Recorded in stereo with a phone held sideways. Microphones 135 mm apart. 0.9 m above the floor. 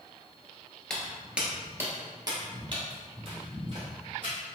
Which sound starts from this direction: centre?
Footsteps, at 0.9 s.